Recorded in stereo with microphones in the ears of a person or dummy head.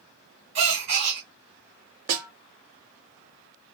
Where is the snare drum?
45° right (ahead or behind), 0.8 m.